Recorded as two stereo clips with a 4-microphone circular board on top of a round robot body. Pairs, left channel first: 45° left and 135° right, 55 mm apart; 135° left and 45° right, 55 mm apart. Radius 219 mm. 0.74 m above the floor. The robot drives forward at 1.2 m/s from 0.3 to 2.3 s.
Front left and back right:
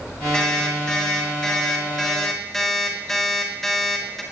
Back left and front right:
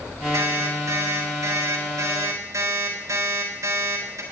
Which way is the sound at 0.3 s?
30° right.